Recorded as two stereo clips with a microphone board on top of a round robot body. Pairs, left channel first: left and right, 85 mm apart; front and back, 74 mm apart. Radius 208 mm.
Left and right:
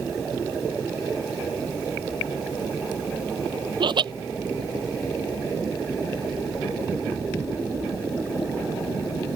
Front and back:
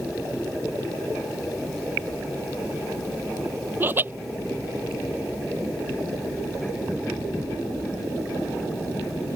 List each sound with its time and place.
3.8 s laughter: 120° right